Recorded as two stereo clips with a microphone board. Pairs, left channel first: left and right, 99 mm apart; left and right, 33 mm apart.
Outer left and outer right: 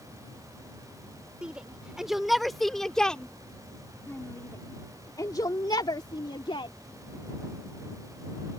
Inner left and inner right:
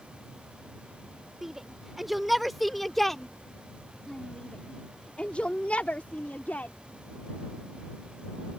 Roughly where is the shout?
Centre.